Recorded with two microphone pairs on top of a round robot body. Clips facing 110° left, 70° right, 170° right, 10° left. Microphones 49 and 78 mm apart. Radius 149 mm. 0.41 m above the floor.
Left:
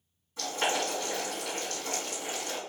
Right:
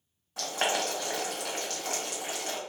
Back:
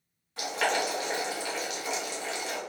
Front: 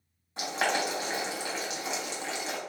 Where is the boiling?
55° right, 1.8 m.